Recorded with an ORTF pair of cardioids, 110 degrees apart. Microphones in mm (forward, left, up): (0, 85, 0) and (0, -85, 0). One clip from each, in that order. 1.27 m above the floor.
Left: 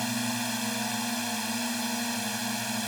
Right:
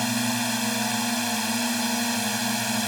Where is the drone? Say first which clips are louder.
Right 5 dB; 25° right; by 2.9 s 30° right.